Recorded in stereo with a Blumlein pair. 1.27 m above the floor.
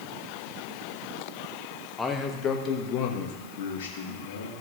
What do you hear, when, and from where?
2.0 s a man speaking: 10° left, 1.4 m; by 4.5 s 65° left, 3 m